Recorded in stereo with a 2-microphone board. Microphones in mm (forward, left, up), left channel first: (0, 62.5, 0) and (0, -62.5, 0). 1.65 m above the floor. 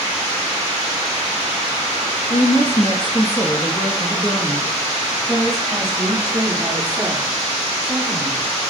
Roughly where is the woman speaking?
Left.